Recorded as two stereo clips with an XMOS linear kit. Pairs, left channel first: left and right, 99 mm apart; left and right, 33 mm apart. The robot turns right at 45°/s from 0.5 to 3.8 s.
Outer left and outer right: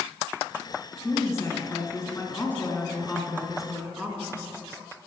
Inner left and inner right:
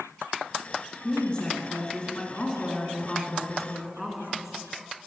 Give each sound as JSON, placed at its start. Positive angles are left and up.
{"t": 1.0, "sound": "a woman speaking", "side_deg": 25, "distance_m": 1.5}